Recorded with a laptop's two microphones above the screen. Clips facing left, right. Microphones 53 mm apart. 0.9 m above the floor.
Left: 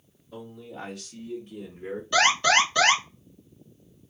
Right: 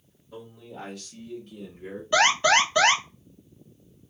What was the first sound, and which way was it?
A man speaking, 10° right (ahead or behind).